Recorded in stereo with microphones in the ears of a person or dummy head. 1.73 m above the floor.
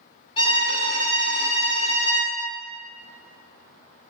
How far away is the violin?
About 0.8 m.